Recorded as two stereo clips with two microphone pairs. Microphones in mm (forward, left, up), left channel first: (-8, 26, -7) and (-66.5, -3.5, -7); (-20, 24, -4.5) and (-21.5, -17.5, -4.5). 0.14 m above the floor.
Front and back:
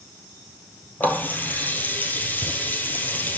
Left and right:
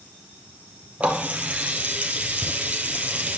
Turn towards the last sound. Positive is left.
turn(degrees=-35)